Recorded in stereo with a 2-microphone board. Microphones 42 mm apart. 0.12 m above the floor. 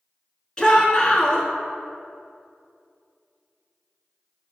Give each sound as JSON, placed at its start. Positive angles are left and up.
{"t": 0.6, "sound": "a shout", "side_deg": 20, "distance_m": 1.2}